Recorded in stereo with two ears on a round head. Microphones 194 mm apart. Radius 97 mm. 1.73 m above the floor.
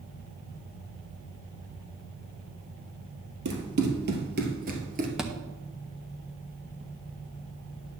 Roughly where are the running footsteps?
Right.